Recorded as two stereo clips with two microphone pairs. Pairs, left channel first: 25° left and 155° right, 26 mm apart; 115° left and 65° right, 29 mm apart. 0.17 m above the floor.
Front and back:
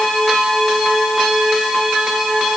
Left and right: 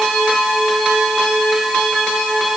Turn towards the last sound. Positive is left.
No sound to turn to.